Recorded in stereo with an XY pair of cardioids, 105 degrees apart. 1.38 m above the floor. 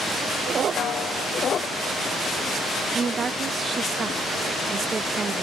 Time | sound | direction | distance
0.8 | a snare drum | 55° left | 1.7 m
2.9 | a woman speaking | 35° right | 1.1 m